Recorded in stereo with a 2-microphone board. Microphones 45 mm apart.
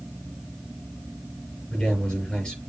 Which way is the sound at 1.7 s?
25° left (ahead or behind).